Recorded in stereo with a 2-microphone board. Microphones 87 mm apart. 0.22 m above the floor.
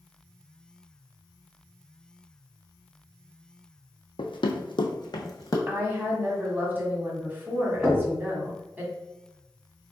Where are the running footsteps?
75° left (ahead or behind), 0.6 m; by 5.6 s 40° left (ahead or behind), 0.8 m.